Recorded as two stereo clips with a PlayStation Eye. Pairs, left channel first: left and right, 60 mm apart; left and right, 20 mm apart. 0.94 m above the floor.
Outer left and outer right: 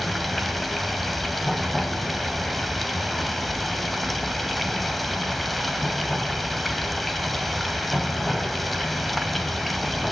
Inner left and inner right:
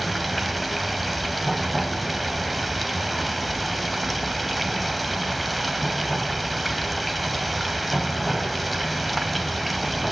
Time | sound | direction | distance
0.0 | running water | centre (ahead or behind) | 1.4 m